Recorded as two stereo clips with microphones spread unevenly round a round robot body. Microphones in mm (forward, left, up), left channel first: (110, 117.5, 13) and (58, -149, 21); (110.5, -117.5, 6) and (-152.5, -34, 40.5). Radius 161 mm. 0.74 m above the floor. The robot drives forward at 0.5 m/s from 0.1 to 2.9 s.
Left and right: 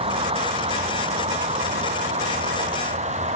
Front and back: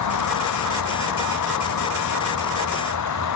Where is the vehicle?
30° right; by 3.4 s 35° right.